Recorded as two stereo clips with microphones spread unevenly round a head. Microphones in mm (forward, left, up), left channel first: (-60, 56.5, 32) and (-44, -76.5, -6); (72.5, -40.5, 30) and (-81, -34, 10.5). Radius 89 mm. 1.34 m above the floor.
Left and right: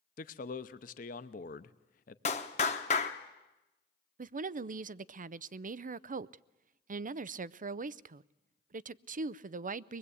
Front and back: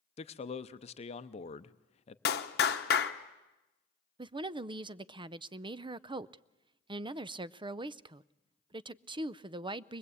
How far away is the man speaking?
About 0.7 m.